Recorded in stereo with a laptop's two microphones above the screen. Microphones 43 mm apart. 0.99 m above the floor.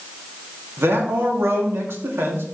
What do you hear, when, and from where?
0.8 s a man speaking: 70° right (ahead or behind), 2 m